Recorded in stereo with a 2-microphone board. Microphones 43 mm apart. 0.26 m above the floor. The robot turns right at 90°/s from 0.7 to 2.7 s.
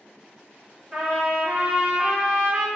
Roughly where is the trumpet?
Behind.